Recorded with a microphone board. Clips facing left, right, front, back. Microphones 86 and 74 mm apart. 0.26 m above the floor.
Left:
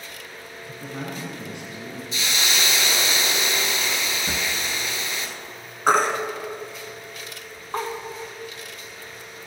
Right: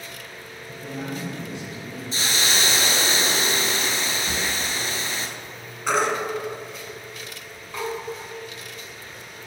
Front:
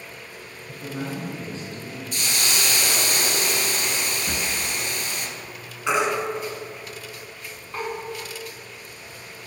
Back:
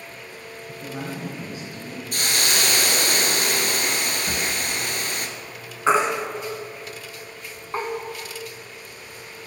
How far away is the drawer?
About 0.6 m.